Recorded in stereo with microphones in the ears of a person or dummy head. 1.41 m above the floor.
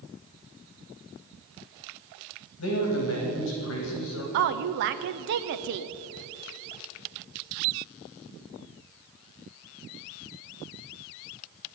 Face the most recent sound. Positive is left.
turn(degrees=-50)  # may be behind; listen again after turning